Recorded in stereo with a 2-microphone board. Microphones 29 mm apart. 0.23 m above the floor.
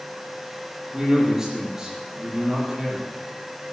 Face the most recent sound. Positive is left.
turn(degrees=-20)  # may be behind; listen again after turning